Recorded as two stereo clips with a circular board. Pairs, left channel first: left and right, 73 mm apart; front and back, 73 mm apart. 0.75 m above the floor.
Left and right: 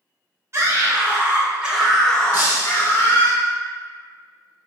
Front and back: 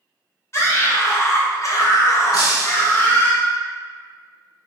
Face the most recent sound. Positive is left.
turn(degrees=-25)